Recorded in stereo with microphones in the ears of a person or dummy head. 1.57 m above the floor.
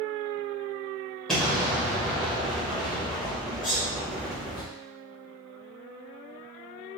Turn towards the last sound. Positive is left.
turn(degrees=40)  # may be behind; listen again after turning